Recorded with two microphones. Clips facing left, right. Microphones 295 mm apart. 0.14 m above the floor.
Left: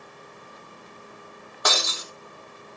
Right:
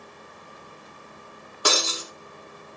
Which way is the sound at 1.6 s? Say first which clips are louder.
Right 3 dB; 35° right (ahead or behind).